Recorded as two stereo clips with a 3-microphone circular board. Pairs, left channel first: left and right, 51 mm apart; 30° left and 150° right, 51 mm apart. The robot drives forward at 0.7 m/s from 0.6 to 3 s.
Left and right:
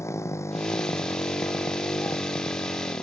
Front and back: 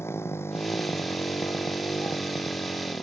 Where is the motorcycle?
65° left; by 3.0 s 70° left.